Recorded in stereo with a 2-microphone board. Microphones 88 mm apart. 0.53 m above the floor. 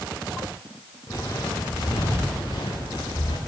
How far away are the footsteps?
About 3 m.